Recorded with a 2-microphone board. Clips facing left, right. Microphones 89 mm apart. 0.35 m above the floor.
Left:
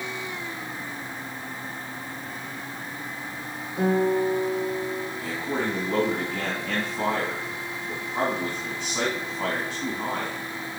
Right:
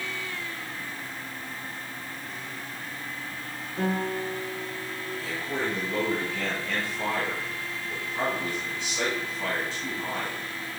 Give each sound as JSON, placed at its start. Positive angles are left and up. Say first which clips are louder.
{"t": 3.8, "sound": "a guitar", "louder": "left 7 dB", "side_deg": 5, "distance_m": 3.5}
{"t": 5.2, "sound": "a man speaking", "louder": "left 1 dB", "side_deg": 45, "distance_m": 3.5}